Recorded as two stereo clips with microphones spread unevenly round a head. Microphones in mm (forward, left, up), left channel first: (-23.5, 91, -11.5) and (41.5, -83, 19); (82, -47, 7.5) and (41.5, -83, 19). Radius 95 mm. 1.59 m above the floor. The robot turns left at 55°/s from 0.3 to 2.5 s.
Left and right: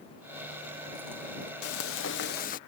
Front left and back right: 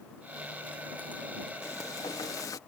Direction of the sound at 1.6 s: 110° left.